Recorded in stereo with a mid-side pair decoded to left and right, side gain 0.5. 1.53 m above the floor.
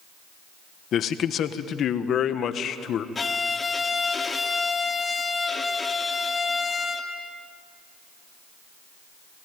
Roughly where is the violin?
Ahead left.